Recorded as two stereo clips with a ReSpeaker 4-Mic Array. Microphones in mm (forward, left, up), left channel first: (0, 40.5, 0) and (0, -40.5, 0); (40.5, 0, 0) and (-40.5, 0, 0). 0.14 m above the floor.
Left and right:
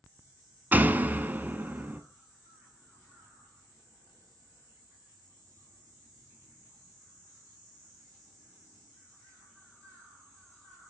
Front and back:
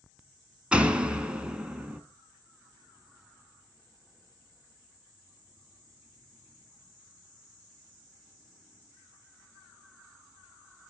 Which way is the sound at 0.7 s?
120° right.